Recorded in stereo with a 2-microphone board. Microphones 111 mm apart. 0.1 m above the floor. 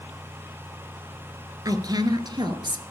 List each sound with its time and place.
1.6 s a woman speaking: 35° right (ahead or behind), 1.9 m; by 2.8 s 45° right (ahead or behind), 2 m